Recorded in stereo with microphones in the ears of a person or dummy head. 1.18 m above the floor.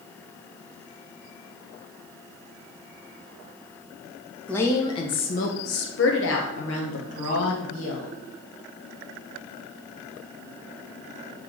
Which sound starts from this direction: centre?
A woman speaking, at 4.5 s.